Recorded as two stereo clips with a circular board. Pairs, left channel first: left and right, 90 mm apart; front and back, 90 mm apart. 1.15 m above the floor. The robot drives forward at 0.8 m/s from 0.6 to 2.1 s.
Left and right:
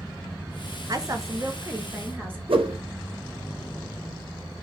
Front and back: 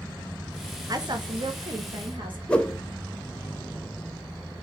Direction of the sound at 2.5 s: 80° right.